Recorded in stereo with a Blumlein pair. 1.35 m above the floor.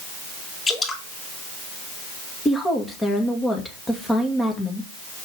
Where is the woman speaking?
10° left, 2 m.